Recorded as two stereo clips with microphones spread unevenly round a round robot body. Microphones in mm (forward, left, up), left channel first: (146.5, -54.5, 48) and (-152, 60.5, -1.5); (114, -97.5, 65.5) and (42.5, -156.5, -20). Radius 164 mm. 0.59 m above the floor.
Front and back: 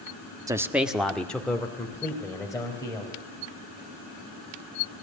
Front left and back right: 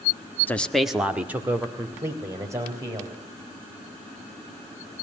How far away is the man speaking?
About 1.1 m.